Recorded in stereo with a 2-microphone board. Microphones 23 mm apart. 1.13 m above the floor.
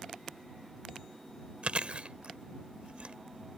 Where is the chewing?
65° right (ahead or behind).